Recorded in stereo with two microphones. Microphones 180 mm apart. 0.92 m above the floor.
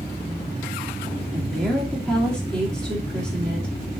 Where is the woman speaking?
5° left (ahead or behind), 2.5 m.